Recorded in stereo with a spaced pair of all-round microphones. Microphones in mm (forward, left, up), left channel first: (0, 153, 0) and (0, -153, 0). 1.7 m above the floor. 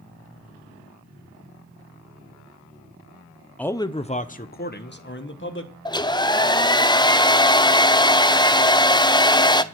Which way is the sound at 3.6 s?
5° left (ahead or behind).